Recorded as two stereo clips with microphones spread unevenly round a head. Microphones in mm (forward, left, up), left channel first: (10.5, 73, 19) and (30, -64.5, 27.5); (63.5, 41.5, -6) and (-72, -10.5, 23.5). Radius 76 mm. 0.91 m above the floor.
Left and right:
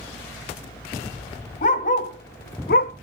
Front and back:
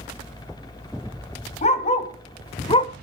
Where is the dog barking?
65° left, 2 m; by 2.9 s 85° left, 1.1 m.